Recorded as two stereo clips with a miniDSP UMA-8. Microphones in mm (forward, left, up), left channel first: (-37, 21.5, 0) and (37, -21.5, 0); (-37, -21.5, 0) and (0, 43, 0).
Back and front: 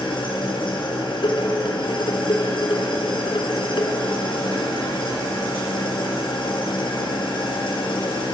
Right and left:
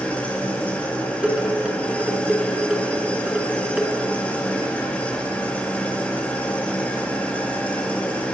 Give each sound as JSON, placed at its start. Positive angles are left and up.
{"t": 0.0, "sound": "an engine running", "azimuth_deg": 165, "distance_m": 6.5}
{"t": 1.2, "sound": "dishes clattering", "azimuth_deg": 135, "distance_m": 3.0}